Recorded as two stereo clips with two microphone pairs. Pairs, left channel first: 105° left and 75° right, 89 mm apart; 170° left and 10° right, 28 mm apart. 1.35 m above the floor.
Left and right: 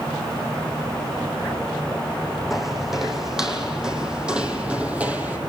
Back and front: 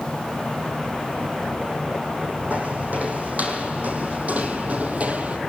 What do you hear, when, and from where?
2.5 s footsteps: 10° left, 4 m; by 5.4 s 10° right, 2.5 m